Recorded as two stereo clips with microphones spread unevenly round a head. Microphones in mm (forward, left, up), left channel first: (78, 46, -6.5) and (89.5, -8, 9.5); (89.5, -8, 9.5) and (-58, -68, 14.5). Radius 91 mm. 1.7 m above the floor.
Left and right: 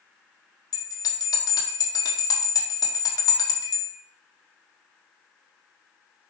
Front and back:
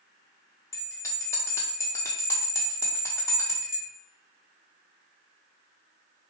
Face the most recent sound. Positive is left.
turn(degrees=100)